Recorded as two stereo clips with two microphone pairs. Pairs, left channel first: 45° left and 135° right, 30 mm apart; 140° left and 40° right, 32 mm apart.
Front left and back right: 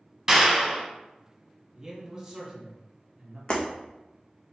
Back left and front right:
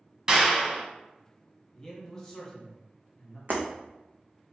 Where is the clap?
75° right, 1.0 m.